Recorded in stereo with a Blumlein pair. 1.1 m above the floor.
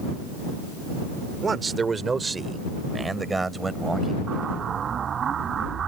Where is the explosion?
25° right.